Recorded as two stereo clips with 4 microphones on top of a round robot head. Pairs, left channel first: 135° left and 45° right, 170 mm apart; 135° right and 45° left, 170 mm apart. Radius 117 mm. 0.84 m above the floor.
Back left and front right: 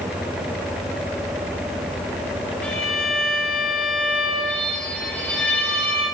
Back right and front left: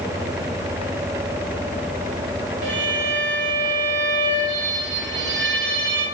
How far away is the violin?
About 2.0 m.